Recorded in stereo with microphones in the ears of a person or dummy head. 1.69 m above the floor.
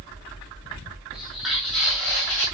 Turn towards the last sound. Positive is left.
turn(degrees=5)  # may be behind; listen again after turning